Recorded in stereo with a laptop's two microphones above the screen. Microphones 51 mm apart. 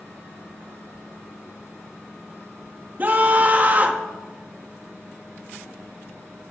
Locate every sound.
3.0 s a scream: 35° right (ahead or behind), 1.6 m